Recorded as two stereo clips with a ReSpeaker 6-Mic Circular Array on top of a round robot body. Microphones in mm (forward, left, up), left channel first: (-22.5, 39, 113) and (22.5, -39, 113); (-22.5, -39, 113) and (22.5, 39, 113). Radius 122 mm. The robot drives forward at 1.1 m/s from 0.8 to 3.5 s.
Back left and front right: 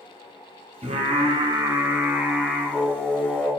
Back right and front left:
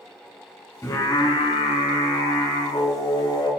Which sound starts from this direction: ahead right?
Singing, at 0.8 s.